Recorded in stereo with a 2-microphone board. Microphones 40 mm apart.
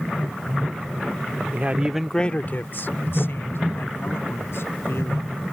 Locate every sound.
1.5 s a man speaking: 45° right (ahead or behind); by 5.4 s 75° left (ahead or behind)